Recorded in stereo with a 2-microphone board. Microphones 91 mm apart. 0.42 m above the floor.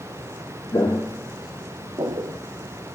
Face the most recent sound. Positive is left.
turn(degrees=-65)  # may be behind; listen again after turning